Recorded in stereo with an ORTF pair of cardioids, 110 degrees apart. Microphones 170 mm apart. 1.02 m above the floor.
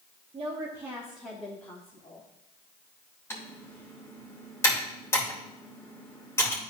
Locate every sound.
0.3 s a woman speaking: 35° right, 1.6 m; by 2.3 s 30° left, 2 m
3.3 s typing on a keyboard: 15° left, 2.5 m